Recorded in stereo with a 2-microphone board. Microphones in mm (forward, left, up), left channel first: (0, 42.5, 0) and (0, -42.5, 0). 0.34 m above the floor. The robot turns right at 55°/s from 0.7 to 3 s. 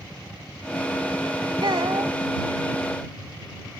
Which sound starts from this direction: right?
A child speaking, at 1.6 s.